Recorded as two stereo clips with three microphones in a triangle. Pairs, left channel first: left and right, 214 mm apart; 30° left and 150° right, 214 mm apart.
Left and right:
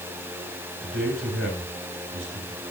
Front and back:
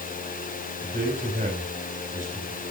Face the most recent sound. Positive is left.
turn(degrees=-100)